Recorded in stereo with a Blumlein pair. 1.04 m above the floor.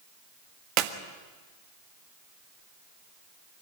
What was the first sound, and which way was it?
A clap, 35° right.